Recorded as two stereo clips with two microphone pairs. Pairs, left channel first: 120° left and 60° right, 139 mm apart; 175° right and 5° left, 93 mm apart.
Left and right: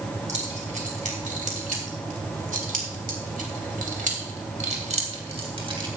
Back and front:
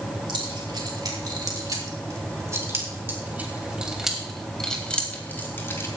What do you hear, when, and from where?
0.3 s keys jangling: 30° right, 4.5 m; by 5.9 s 115° right, 3 m